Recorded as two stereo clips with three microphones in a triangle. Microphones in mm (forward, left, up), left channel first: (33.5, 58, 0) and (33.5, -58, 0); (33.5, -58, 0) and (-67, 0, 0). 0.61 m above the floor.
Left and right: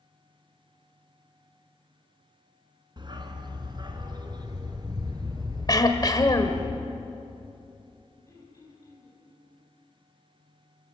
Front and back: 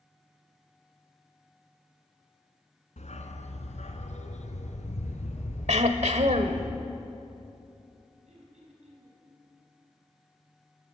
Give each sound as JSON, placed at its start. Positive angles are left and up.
{"t": 3.0, "sound": "a dog barking", "azimuth_deg": -40, "distance_m": 2.0}
{"t": 5.7, "sound": "throat clearing", "azimuth_deg": 145, "distance_m": 1.5}
{"t": 8.3, "sound": "throat clearing", "azimuth_deg": 150, "distance_m": 5.0}